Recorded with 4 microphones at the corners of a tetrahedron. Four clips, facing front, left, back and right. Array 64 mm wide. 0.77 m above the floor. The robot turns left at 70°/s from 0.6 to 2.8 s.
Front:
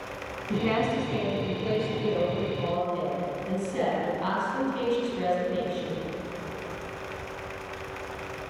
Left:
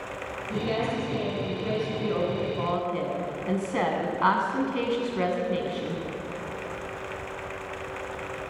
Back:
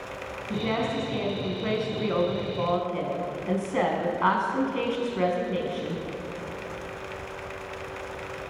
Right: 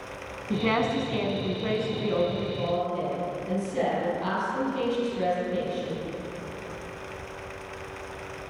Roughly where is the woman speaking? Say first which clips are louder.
Right 3 dB, front 2 dB; right.